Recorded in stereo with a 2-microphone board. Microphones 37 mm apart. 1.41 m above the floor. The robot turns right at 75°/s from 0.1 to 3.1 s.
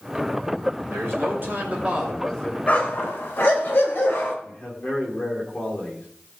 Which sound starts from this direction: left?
A man speaking, at 4.4 s.